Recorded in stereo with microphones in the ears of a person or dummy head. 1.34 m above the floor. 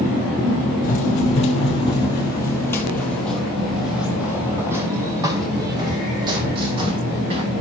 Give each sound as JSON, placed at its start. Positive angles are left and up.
{"t": 0.8, "sound": "running footsteps", "side_deg": 45, "distance_m": 2.0}